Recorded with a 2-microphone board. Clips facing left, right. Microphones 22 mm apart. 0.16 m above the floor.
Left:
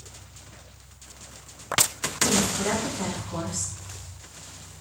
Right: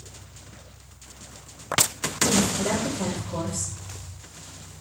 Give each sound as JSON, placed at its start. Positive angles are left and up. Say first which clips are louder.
{"t": 2.2, "sound": "a woman speaking", "louder": "right 1 dB", "side_deg": 35, "distance_m": 1.2}